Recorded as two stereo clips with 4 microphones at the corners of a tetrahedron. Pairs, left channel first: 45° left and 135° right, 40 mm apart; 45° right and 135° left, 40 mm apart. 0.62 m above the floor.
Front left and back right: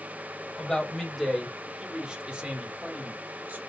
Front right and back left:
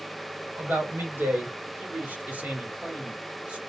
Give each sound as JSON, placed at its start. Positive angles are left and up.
{"t": 0.6, "sound": "a man speaking", "azimuth_deg": 120, "distance_m": 2.0}